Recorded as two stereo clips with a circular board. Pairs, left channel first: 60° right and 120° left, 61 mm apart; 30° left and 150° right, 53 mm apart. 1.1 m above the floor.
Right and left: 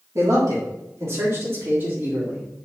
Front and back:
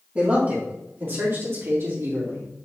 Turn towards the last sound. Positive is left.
turn(degrees=-175)